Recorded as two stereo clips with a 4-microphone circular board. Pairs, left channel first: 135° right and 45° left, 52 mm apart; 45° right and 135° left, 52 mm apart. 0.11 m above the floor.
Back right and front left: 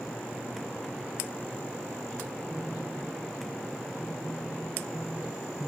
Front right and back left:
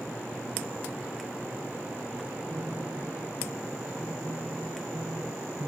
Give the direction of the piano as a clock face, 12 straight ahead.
8 o'clock.